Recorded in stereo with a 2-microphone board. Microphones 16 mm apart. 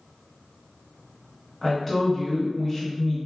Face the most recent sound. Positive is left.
turn(degrees=15)  # may be behind; listen again after turning